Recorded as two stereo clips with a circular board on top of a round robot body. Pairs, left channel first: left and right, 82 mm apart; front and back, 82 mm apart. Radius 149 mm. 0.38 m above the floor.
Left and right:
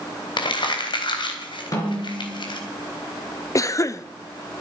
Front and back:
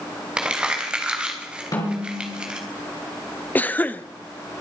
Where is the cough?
60° left, 1.1 m.